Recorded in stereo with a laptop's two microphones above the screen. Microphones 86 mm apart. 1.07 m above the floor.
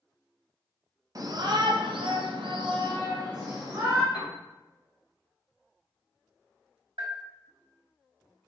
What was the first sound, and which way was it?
A shout, 45° right (ahead or behind).